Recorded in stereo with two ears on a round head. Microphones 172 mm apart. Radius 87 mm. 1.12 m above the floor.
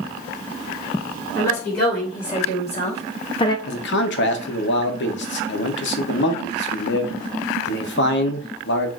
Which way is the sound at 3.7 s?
65° left (ahead or behind).